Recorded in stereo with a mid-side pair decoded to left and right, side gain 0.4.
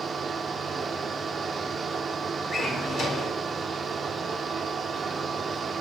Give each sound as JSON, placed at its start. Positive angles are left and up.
{"t": 0.0, "sound": "a fan", "azimuth_deg": -50, "distance_m": 0.7}
{"t": 2.5, "sound": "a drawer", "azimuth_deg": 65, "distance_m": 2.5}